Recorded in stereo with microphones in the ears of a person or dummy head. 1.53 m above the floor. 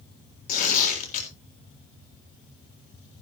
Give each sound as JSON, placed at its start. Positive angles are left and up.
{"t": 0.5, "sound": "tearing paper", "side_deg": 45, "distance_m": 3.5}